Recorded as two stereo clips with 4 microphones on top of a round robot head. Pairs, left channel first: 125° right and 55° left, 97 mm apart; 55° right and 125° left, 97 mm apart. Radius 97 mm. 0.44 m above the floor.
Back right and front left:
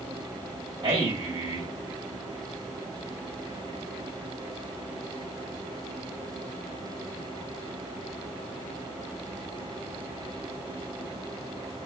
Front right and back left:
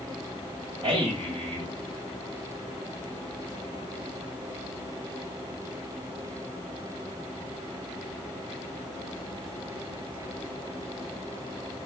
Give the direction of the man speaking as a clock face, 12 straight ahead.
9 o'clock.